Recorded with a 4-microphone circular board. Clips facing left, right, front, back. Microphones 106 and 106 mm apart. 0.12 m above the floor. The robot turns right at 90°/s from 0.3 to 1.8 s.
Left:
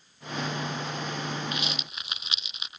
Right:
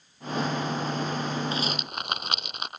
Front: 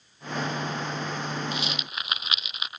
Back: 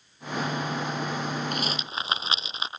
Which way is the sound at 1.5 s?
150° right.